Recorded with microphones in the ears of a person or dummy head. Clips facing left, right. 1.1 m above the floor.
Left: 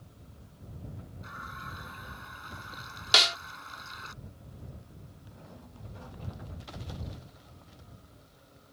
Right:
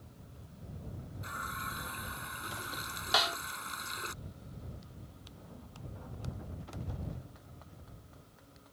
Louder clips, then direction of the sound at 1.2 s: Right 2 dB; 45° right (ahead or behind).